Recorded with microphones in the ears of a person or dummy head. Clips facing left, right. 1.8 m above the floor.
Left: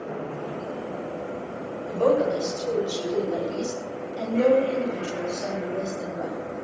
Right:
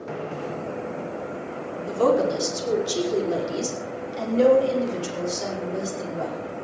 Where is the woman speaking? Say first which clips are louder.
Right 1 dB; 85° right, 5.5 m; by 6.4 s 80° right, 8 m.